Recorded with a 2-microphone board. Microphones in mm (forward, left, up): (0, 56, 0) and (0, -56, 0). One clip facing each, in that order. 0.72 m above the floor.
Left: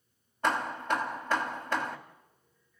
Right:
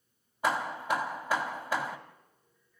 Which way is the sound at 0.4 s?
10° right (ahead or behind).